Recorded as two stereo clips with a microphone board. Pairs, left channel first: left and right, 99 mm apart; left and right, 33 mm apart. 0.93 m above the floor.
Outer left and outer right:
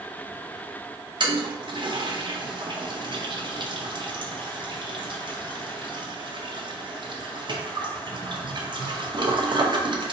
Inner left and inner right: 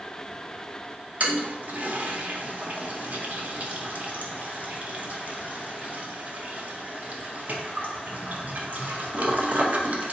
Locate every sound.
1.2 s a toilet flushing: 50° right (ahead or behind), 0.5 m